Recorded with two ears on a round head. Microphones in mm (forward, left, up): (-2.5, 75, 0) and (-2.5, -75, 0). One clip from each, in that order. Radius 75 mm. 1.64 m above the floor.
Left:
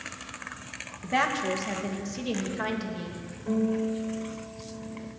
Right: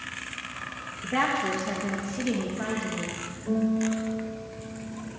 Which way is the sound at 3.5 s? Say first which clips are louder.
Even; 70° left (ahead or behind).